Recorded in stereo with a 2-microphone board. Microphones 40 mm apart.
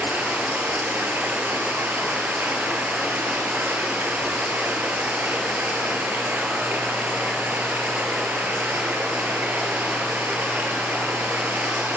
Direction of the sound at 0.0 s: 50° right (ahead or behind).